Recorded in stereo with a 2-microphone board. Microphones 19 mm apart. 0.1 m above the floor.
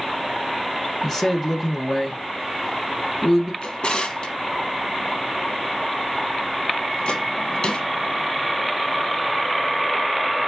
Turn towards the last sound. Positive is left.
turn(degrees=60)  # may be behind; listen again after turning